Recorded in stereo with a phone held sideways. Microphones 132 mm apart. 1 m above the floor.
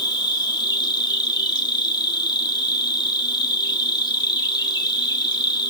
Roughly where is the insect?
Left.